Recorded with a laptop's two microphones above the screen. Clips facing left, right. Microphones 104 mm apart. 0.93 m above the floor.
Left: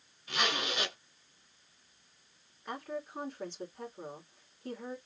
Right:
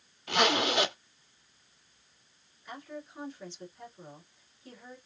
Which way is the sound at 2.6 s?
55° left (ahead or behind).